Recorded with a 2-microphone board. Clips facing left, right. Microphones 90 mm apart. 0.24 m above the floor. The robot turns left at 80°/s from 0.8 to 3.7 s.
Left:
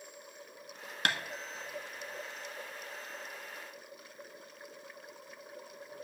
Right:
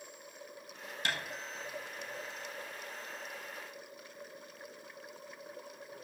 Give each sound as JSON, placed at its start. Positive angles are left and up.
{"t": 1.1, "sound": "tapping", "side_deg": 65, "distance_m": 1.1}